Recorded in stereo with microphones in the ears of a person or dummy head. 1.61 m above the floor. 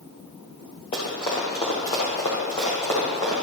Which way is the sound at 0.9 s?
25° left (ahead or behind).